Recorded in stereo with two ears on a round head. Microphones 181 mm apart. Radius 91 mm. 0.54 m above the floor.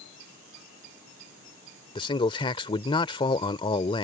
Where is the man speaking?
25° left (ahead or behind).